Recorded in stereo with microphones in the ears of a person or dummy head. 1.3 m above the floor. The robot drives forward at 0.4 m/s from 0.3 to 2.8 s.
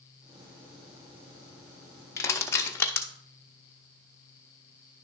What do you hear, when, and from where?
2.2 s crushing: 10° left (ahead or behind), 0.7 m